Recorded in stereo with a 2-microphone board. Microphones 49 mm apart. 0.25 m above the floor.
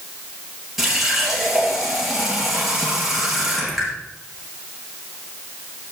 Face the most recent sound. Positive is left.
turn(degrees=-5)  # may be behind; listen again after turning